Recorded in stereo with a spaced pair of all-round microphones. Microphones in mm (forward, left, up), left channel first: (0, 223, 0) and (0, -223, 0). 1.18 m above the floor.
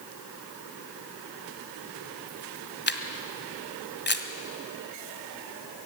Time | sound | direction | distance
2.9 | a camera shutter | 25° left (ahead or behind) | 1.6 m